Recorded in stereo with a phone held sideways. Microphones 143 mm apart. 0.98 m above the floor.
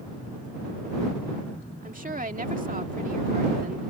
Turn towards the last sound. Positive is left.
turn(degrees=-70)  # may be behind; listen again after turning